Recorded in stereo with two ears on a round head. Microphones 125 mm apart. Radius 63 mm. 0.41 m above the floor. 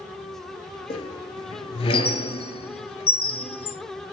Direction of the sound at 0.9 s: 40° left (ahead or behind).